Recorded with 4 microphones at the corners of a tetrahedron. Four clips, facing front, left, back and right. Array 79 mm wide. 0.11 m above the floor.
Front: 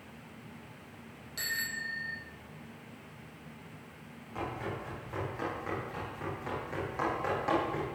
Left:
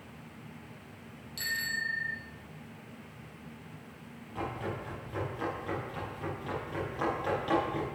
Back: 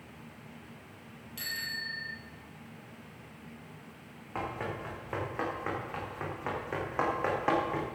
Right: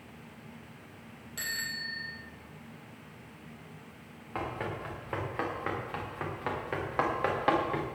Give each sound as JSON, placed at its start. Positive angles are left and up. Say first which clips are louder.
{"t": 1.4, "sound": "a bicycle bell", "louder": "left 4 dB, front 2 dB", "azimuth_deg": -60, "distance_m": 3.5}
{"t": 4.3, "sound": "running footsteps", "louder": "right 1 dB, back 1 dB", "azimuth_deg": -120, "distance_m": 8.0}